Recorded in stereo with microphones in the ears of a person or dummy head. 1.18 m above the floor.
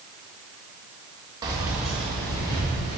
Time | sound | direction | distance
1.4 | keys jangling | 20° right (ahead or behind) | 0.8 m